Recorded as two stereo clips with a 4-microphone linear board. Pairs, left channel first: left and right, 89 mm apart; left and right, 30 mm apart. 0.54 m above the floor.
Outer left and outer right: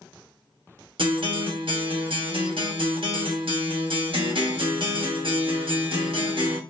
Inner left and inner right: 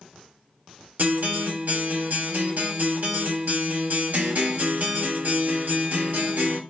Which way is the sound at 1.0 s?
75° right (ahead or behind).